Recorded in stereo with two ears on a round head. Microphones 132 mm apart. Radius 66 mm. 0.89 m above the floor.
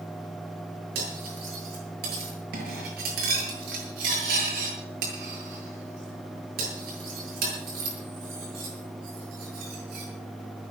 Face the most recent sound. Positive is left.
turn(degrees=-70)  # may be behind; listen again after turning